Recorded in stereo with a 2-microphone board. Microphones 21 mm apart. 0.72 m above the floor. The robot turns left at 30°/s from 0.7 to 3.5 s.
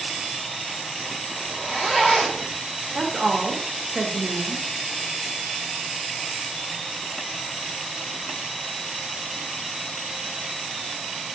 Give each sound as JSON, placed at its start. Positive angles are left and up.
{"t": 1.4, "sound": "a zipper", "azimuth_deg": -160, "distance_m": 1.5}
{"t": 3.0, "sound": "a woman speaking", "side_deg": -45, "distance_m": 0.6}